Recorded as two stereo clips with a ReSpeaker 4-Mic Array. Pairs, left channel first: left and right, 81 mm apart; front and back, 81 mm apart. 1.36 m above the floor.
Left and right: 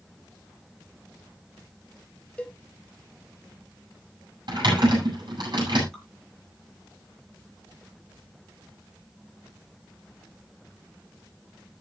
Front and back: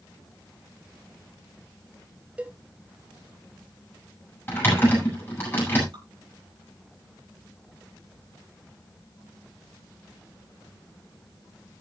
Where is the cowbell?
140° left, 0.8 m.